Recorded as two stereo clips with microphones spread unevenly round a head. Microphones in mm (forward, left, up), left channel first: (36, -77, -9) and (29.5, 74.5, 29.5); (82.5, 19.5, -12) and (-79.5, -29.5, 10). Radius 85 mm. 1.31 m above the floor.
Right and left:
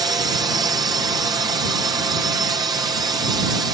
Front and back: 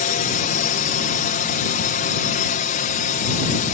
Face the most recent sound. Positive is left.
turn(degrees=20)